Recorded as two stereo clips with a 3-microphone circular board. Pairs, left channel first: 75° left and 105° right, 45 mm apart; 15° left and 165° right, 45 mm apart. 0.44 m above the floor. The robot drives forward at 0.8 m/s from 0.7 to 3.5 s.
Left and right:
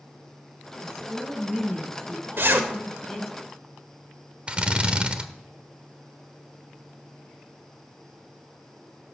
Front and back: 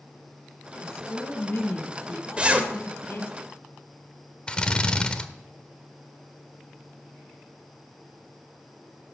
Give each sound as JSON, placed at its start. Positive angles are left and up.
{"t": 0.8, "sound": "a woman speaking", "azimuth_deg": -10, "distance_m": 5.0}
{"t": 2.4, "sound": "a zipper", "azimuth_deg": -105, "distance_m": 1.2}
{"t": 4.5, "sound": "a drill", "azimuth_deg": -45, "distance_m": 0.9}